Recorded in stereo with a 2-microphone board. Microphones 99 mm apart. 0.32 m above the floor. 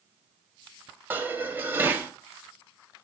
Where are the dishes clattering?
20° right (ahead or behind), 1.1 m.